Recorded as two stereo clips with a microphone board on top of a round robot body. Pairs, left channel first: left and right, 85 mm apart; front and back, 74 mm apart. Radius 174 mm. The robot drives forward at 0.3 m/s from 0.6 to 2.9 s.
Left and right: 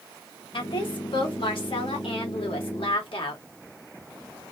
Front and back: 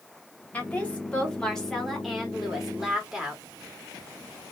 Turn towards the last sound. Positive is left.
turn(degrees=95)